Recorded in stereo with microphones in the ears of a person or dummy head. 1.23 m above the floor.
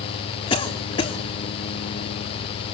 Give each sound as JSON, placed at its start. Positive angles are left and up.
{"t": 0.5, "sound": "a cough", "side_deg": 30, "distance_m": 3.0}